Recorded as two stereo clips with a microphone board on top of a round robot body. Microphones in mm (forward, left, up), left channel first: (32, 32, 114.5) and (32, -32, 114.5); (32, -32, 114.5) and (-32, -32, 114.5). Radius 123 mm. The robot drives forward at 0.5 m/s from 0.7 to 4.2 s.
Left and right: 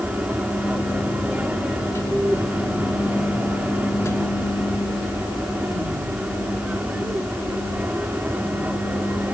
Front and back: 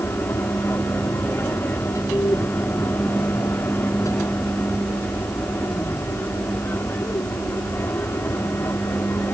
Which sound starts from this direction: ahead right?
An aircraft, at 0.0 s.